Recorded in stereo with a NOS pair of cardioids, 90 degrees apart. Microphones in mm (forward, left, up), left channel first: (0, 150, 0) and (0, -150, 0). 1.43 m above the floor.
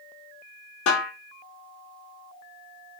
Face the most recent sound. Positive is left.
turn(degrees=65)